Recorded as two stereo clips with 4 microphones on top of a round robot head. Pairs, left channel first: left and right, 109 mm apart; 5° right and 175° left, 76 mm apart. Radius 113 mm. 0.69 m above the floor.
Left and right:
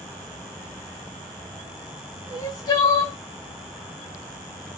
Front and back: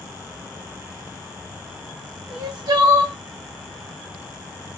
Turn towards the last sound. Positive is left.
turn(degrees=140)